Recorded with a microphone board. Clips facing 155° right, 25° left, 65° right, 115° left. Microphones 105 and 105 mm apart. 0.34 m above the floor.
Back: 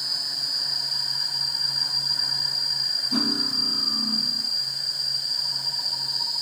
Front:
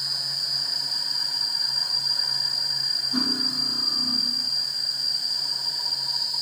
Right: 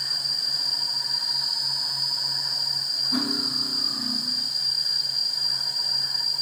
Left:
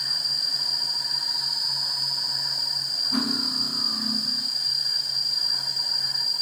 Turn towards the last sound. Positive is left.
turn(degrees=-155)